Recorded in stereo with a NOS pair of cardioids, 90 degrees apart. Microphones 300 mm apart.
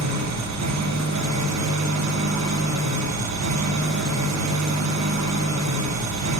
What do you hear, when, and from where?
0.0 s an engine running: 65° right, 1.0 m